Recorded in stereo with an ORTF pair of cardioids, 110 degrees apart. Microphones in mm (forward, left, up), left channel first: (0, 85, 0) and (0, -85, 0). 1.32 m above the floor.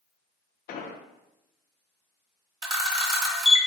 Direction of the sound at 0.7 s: 65° left.